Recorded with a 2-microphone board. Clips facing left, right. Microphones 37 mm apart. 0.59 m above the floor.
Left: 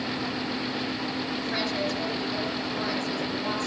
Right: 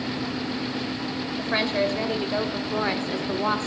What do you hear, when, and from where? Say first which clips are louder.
1.4 s a woman speaking: right 7 dB; 40° right (ahead or behind), 2.5 m; by 3.7 s 45° right (ahead or behind), 1.4 m